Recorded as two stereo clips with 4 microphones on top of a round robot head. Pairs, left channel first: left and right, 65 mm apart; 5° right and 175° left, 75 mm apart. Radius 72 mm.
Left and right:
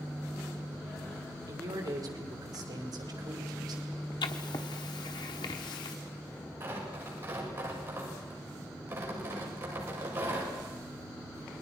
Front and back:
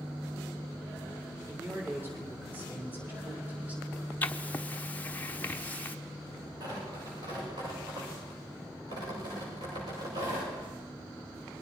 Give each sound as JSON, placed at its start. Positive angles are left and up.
{"t": 1.5, "sound": "a man speaking", "azimuth_deg": -120, "distance_m": 4.5}
{"t": 4.2, "sound": "writing", "azimuth_deg": 60, "distance_m": 1.1}
{"t": 6.6, "sound": "tearing paper", "azimuth_deg": -145, "distance_m": 8.0}